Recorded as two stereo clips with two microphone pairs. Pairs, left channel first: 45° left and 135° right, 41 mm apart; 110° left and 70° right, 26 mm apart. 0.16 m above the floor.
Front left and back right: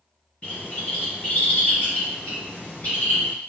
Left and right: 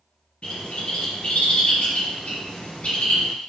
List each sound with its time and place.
0.4 s a bird: 95° left, 2.5 m